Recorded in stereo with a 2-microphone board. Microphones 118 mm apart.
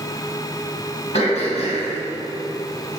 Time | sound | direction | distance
1.1 | throat clearing | 65° left (ahead or behind) | 3 m